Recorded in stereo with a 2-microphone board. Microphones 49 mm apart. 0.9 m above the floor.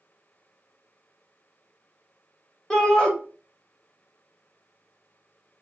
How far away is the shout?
About 1.2 m.